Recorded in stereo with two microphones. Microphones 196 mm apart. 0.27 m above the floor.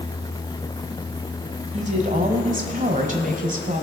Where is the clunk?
I don't hear a clunk.